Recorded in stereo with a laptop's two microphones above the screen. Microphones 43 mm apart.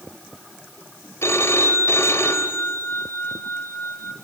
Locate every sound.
1.2 s a phone ringing: 85° left, 2 m